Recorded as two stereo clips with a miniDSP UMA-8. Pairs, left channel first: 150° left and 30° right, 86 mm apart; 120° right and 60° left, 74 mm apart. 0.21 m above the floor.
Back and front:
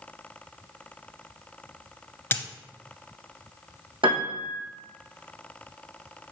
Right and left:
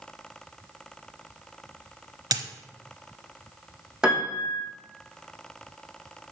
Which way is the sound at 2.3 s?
85° left.